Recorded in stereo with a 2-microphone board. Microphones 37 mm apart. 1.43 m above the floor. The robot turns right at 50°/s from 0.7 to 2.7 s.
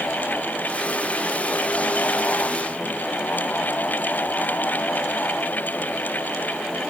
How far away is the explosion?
I don't hear an explosion.